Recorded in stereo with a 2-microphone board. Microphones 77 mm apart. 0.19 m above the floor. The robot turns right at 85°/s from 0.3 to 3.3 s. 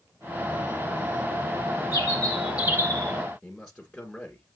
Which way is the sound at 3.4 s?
5° left (ahead or behind).